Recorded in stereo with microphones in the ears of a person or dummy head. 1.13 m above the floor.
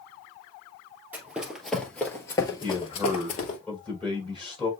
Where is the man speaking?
5° left (ahead or behind), 4.5 m.